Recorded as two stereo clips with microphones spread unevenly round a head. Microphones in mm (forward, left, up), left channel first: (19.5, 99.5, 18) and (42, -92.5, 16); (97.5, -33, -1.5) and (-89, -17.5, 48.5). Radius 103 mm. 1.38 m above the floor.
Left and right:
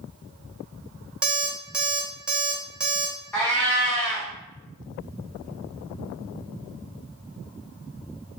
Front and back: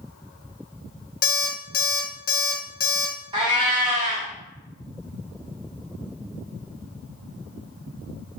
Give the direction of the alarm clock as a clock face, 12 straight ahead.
12 o'clock.